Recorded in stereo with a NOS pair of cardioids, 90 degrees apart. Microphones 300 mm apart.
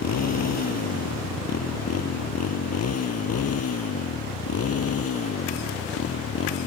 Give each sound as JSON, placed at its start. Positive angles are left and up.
{"t": 0.0, "sound": "a motorcycle", "azimuth_deg": 60}